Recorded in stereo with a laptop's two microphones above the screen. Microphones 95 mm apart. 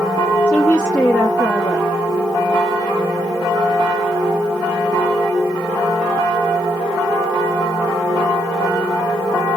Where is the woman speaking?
15° left (ahead or behind), 1.4 m.